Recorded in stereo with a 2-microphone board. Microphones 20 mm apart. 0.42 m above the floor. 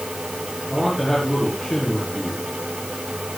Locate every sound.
0.7 s a man speaking: 5° left (ahead or behind), 5.5 m